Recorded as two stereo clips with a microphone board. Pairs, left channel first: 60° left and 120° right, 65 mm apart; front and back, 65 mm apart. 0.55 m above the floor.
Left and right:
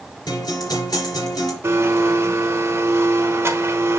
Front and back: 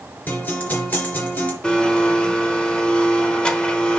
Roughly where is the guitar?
Ahead left.